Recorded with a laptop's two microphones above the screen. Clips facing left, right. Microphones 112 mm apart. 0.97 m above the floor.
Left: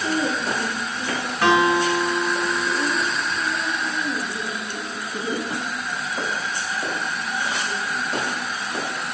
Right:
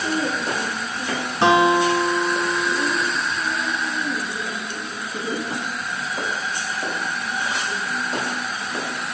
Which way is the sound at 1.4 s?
25° right (ahead or behind).